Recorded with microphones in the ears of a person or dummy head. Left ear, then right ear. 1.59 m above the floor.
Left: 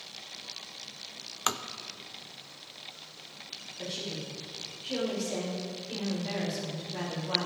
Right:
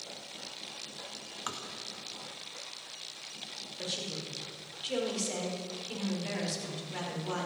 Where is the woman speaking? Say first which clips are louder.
Even; 45° right (ahead or behind), 6 m.